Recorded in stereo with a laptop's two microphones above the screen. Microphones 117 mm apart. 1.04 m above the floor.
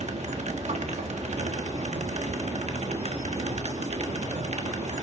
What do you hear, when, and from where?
0.0 s a machine running: 75° right (ahead or behind), 1.4 m